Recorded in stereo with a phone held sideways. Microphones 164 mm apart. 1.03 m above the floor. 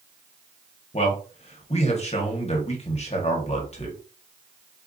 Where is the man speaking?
40° left (ahead or behind), 1.1 m.